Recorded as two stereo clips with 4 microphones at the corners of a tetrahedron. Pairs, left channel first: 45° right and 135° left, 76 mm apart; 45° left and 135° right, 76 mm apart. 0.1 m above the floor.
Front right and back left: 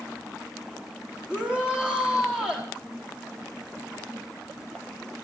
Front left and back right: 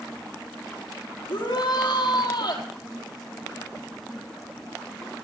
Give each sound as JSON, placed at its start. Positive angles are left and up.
{"t": 1.3, "sound": "a shout", "azimuth_deg": 60, "distance_m": 4.5}